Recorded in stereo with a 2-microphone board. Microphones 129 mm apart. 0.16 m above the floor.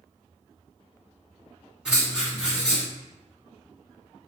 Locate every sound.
1.9 s writing: 5° right (ahead or behind), 1.6 m